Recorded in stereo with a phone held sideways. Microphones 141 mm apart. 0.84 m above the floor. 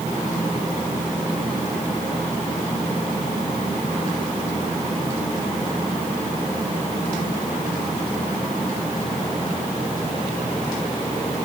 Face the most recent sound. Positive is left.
No sound to turn to.